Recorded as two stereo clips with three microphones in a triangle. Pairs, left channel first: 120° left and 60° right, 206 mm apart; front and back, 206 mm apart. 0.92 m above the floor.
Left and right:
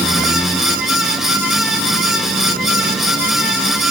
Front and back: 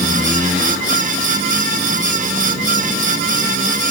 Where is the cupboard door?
I don't hear a cupboard door.